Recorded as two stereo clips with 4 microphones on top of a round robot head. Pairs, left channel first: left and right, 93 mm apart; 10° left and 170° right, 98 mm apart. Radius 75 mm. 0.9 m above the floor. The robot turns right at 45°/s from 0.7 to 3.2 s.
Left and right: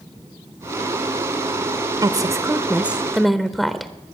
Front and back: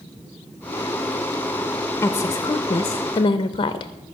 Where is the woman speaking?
55° right, 0.7 m; by 3.9 s straight ahead, 0.7 m.